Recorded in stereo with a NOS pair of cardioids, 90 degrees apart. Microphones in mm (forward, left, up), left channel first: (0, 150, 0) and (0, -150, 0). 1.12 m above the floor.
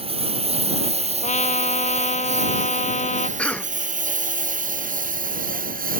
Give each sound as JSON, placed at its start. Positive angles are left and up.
{"t": 0.0, "sound": "a lawn mower", "azimuth_deg": -20}
{"t": 1.2, "sound": "a trumpet", "azimuth_deg": 25}
{"t": 3.4, "sound": "a cough", "azimuth_deg": 5}